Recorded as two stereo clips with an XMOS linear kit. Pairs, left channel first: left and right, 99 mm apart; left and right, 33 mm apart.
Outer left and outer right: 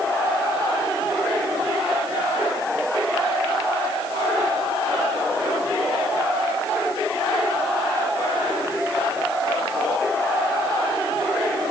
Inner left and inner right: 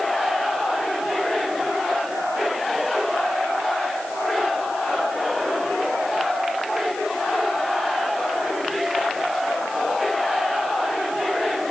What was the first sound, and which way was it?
Only background noise.